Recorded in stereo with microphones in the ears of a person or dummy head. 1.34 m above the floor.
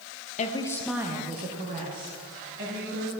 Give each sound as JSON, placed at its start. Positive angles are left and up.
{"t": 0.4, "sound": "a woman speaking", "side_deg": 35, "distance_m": 0.8}